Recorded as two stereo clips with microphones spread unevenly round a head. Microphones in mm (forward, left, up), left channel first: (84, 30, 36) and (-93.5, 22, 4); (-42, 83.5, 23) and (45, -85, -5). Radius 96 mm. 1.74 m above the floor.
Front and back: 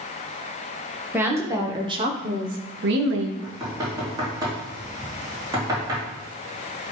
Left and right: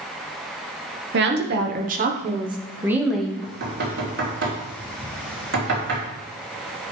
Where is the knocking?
105° right, 3 m.